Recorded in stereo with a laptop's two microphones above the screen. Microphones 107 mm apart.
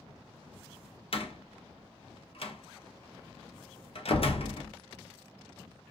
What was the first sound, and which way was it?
A door slam, 60° left (ahead or behind).